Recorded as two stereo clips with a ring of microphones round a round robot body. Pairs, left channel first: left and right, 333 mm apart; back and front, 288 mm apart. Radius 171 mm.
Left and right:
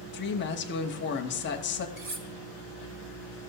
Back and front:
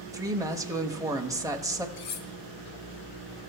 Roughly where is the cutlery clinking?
Behind right.